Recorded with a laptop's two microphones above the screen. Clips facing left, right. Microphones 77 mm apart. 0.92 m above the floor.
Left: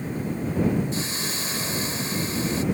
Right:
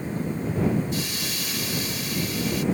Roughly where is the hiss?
Left.